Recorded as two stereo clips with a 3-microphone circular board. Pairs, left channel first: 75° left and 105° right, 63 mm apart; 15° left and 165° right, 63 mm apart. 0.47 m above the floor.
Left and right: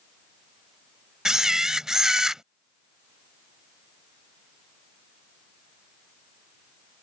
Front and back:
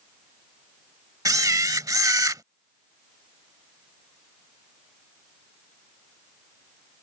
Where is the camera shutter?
175° left.